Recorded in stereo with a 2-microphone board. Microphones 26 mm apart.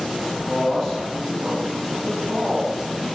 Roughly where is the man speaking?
Left.